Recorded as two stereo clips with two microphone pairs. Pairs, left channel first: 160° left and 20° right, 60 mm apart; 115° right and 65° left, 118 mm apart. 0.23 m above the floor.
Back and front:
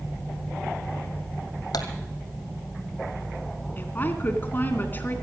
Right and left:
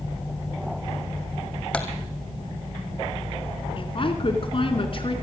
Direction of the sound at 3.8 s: 145° right.